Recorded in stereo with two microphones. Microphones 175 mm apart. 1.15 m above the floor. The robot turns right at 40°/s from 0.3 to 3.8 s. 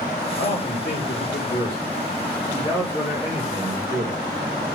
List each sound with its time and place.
0.4 s a man speaking: 75° left, 3 m; by 4.2 s 150° right, 3 m